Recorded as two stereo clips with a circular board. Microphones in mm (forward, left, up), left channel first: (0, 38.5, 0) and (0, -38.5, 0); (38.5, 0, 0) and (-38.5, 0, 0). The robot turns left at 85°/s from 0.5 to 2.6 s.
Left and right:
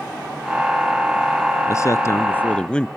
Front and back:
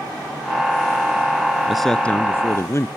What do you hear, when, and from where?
1.7 s a man speaking: 100° left; by 2.9 s 20° left